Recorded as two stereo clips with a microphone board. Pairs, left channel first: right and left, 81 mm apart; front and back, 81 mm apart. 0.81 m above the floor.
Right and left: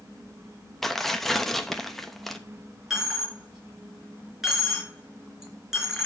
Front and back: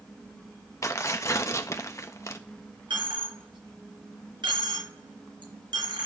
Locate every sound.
0.8 s tearing paper: 5° right, 0.8 m
2.9 s a dropped coin: 175° left, 3.5 m